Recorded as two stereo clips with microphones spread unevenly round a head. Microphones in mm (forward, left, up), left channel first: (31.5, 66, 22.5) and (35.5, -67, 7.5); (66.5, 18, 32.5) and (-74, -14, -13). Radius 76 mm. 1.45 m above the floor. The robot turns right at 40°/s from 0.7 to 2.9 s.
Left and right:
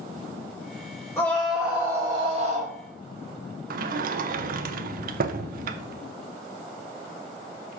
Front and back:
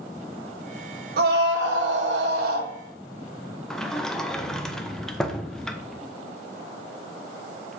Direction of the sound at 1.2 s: 165° left.